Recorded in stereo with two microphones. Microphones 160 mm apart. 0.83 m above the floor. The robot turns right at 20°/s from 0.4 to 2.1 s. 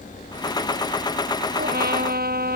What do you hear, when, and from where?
1.6 s a trumpet: 85° right; by 2.6 s 75° right (ahead or behind)